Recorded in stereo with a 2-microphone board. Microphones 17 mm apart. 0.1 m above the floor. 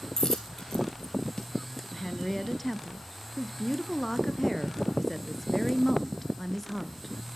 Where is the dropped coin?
20° left (ahead or behind), 2.5 m.